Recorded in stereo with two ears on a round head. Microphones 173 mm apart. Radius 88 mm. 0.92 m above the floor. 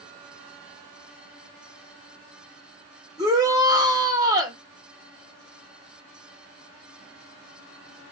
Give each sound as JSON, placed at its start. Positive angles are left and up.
{"t": 3.2, "sound": "a shout", "side_deg": -20, "distance_m": 2.5}